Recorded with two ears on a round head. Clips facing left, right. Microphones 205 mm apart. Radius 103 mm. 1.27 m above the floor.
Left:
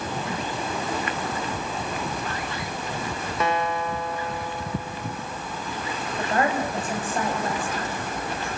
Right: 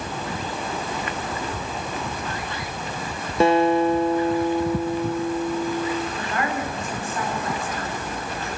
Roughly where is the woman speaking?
Left.